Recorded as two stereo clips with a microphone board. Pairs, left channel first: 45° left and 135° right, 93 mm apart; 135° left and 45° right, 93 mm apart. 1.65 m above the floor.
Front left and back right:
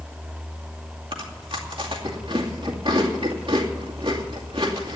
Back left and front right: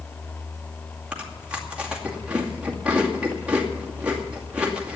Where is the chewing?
120° right, 2.5 m.